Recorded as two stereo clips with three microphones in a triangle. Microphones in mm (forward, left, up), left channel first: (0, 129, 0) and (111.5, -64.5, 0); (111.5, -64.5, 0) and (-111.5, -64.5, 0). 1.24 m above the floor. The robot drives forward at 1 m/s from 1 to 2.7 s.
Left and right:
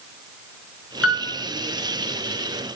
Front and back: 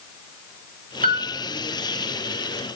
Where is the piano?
130° left, 1.1 m; by 1.3 s 140° left, 1.3 m.